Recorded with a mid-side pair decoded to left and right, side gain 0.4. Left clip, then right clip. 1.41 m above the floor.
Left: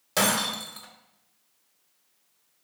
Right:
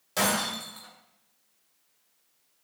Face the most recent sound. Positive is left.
turn(degrees=45)